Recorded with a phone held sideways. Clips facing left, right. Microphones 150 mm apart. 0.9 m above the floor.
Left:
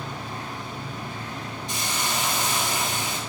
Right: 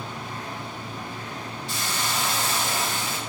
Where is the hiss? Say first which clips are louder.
Even; 20° left (ahead or behind), 0.6 m.